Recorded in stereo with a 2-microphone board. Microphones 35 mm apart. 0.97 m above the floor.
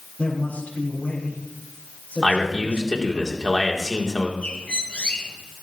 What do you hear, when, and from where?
0.2 s a man speaking: 50° left (ahead or behind), 4.5 m
2.2 s a man speaking: 20° left (ahead or behind), 2.5 m
4.4 s a bird: 45° left (ahead or behind), 2.5 m